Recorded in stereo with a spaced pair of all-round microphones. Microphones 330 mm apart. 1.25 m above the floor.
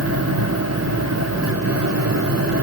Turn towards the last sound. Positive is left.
turn(degrees=-50)  # may be behind; listen again after turning